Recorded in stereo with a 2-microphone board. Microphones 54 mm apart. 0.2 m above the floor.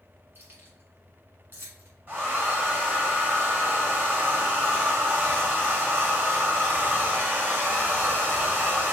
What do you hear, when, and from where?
0.3 s keys jangling: 40° right (ahead or behind), 1.5 m
2.1 s a hair dryer: 35° right (ahead or behind), 1.8 m